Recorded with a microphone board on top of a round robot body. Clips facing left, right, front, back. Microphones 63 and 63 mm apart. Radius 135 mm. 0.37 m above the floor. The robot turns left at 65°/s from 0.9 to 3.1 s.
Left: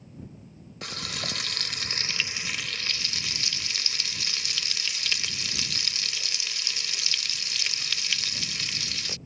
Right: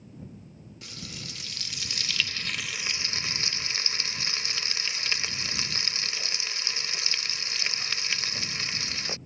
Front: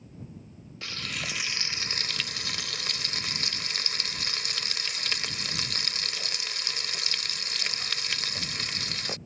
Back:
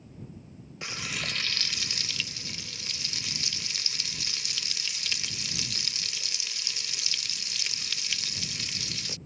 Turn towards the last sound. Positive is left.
turn(degrees=-35)